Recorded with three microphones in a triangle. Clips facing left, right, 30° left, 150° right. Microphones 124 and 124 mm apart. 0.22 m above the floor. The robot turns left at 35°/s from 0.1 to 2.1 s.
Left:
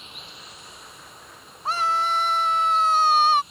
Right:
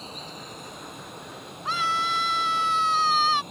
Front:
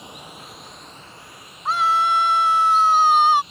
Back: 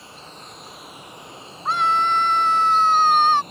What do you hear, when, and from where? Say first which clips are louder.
0.0 s running water: right 6 dB, front 2 dB; 40° right; by 3.5 s 110° right
1.6 s a scream: left 4 dB, front 1 dB; 120° left; by 3.4 s 105° left